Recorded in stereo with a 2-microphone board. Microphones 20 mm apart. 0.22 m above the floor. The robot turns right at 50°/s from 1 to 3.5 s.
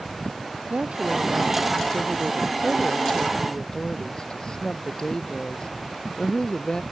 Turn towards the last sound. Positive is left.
turn(degrees=45)